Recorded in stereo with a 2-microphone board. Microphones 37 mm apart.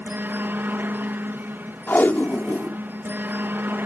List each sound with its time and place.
0.0 s a helicopter: 60° right (ahead or behind)
1.9 s tape being pulled: 55° left (ahead or behind)